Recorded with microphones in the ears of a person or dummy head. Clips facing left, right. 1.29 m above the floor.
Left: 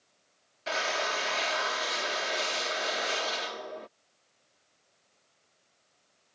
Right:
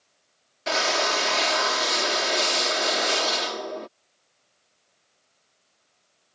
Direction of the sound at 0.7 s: 60° right (ahead or behind).